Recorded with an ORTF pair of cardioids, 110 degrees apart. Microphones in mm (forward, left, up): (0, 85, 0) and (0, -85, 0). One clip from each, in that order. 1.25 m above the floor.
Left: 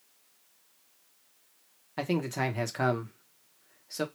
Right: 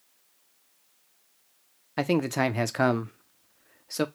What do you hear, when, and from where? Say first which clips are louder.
2.0 s a man speaking: right 5 dB; 30° right, 0.5 m